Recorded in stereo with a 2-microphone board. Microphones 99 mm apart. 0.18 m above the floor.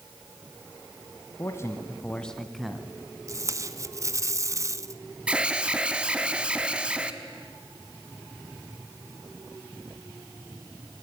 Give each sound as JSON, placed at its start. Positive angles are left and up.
{"t": 1.4, "sound": "a man speaking", "side_deg": 35, "distance_m": 1.5}
{"t": 3.3, "sound": "tape being pulled", "side_deg": -35, "distance_m": 0.7}
{"t": 5.3, "sound": "an alarm", "side_deg": -10, "distance_m": 1.3}